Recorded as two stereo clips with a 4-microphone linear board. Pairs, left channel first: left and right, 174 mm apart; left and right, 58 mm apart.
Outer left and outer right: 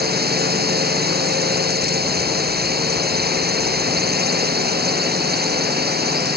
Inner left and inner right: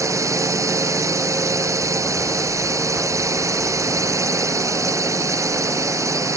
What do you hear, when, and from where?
0.0 s a drone: 65° right (ahead or behind)